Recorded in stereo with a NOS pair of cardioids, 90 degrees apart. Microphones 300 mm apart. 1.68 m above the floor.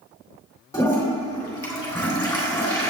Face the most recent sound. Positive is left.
turn(degrees=10)